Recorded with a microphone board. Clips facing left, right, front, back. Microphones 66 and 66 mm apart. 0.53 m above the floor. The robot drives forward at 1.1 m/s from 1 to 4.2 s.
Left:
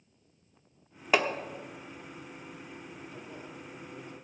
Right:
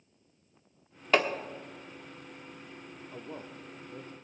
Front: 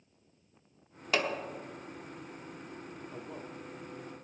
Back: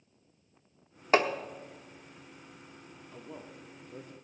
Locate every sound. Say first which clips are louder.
1.1 s hammering: right 1 dB, back 6 dB; 165° left, 1.0 m; by 1.3 s 170° left, 1.1 m
3.1 s a man speaking: right 1 dB, back 1 dB; 50° right, 0.8 m; by 4.1 s 160° right, 1.2 m